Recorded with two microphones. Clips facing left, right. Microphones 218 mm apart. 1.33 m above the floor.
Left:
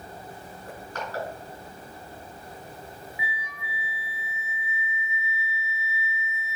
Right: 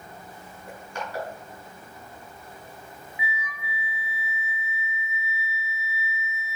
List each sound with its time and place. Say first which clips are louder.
0.7 s crushing: right 1 dB; 10° right (ahead or behind), 5 m
3.2 s a flute: right 2 dB; 25° left (ahead or behind), 0.7 m